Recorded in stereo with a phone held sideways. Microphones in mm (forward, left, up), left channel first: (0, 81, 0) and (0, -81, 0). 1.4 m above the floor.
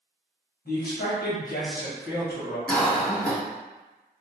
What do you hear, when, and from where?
0.7 s a man speaking: 75° left (ahead or behind), 1.1 m
2.7 s a cough: 10° left (ahead or behind), 0.8 m